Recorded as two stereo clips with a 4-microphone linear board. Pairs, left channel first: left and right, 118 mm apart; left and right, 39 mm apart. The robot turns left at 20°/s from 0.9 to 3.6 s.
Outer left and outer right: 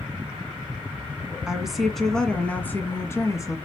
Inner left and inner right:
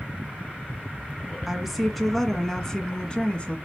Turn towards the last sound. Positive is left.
turn(degrees=145)